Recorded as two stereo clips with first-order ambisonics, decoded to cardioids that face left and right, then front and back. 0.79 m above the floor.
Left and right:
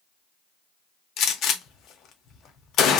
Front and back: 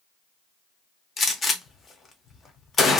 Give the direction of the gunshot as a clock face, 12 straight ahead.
10 o'clock.